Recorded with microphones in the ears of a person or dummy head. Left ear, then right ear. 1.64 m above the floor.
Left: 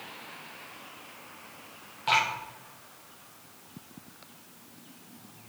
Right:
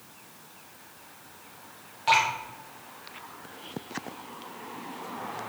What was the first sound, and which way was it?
Dripping, centre (ahead or behind).